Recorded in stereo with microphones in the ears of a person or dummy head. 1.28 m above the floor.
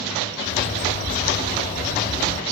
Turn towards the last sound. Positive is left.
turn(degrees=40)  # may be behind; listen again after turning